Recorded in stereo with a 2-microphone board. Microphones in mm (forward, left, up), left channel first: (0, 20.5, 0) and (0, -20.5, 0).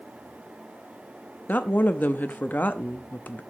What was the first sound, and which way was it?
A woman speaking, 50° left (ahead or behind).